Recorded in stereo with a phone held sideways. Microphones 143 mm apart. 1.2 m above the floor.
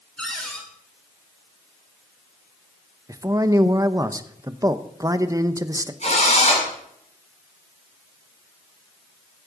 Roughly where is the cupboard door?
Centre.